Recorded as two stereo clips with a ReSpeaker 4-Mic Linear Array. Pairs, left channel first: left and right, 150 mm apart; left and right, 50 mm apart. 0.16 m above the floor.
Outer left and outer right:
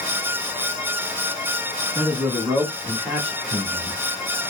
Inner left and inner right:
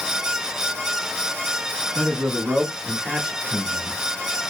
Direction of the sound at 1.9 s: 10° right (ahead or behind).